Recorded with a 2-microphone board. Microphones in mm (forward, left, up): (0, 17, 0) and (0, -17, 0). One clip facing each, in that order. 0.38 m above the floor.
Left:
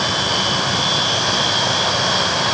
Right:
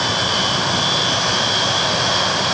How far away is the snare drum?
No snare drum in this recording.